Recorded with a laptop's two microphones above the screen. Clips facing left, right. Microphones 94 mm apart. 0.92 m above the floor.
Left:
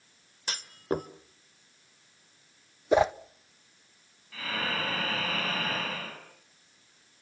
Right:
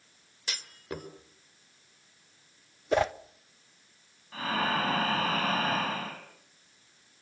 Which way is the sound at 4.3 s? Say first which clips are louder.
Right 5 dB; 40° right (ahead or behind).